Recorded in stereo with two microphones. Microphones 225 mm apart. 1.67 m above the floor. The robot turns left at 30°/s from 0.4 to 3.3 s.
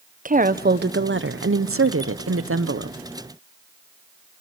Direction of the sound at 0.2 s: 40° right.